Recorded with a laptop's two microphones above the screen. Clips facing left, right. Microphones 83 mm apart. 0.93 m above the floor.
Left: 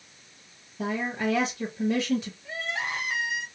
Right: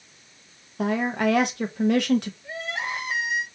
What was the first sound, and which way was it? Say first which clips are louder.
A woman speaking: right 5 dB; 65° right (ahead or behind).